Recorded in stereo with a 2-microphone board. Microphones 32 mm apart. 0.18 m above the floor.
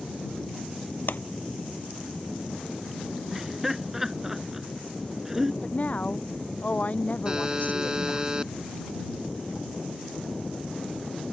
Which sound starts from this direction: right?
A buzzer, at 7.2 s.